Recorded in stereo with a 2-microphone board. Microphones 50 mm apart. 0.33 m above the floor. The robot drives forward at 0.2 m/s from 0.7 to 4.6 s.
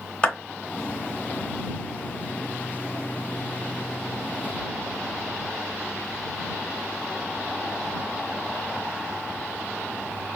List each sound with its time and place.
0.2 s a clap: 20° left (ahead or behind), 3 m